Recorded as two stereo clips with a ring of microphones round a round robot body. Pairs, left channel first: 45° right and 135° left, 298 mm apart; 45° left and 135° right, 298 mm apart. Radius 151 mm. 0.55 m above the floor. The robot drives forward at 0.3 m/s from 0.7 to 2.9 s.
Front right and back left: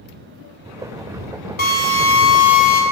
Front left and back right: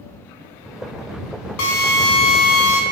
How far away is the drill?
About 2 m.